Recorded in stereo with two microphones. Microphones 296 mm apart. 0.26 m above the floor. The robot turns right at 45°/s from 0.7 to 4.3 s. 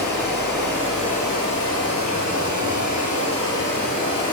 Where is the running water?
5° left, 2.5 m; by 4.3 s 165° left, 2.5 m.